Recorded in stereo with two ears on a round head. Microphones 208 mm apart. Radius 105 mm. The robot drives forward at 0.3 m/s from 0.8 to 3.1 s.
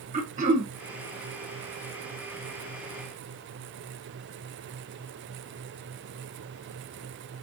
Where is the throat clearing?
35° right (ahead or behind), 1.0 m.